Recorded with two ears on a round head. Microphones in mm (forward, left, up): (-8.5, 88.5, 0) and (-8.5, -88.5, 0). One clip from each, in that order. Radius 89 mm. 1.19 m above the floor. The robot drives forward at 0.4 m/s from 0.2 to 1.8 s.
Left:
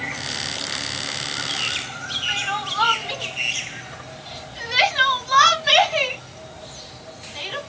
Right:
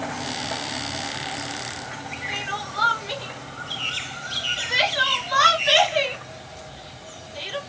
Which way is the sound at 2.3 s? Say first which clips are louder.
Left 4 dB; 15° left (ahead or behind).